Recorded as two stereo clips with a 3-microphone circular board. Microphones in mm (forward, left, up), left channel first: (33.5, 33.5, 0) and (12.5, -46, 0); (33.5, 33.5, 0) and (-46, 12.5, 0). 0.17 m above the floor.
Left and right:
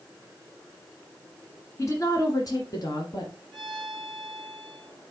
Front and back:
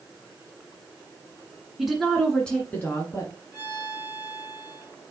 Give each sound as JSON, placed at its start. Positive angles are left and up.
{"t": 1.8, "sound": "a woman speaking", "azimuth_deg": 110, "distance_m": 1.6}
{"t": 3.5, "sound": "a violin", "azimuth_deg": -10, "distance_m": 3.0}